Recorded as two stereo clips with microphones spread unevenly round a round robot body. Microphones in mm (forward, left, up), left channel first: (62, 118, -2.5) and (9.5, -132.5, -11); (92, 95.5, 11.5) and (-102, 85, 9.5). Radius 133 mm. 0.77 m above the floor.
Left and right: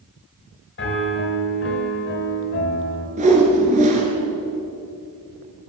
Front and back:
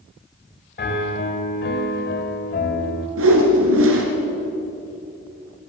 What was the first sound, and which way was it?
A piano, 35° left.